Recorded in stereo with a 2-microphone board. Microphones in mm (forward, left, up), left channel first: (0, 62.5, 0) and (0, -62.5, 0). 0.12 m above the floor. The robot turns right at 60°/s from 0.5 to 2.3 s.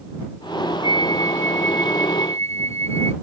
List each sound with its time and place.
0.8 s a flute: 145° right; by 3.1 s 60° right